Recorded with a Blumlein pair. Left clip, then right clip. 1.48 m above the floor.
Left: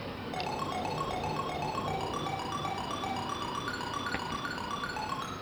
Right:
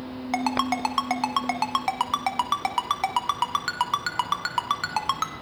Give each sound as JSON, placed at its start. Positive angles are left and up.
{"t": 0.3, "sound": "a ringtone", "azimuth_deg": -55, "distance_m": 1.1}